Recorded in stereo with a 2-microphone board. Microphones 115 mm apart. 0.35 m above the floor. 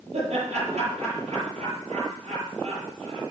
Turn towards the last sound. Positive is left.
turn(degrees=-75)  # may be behind; listen again after turning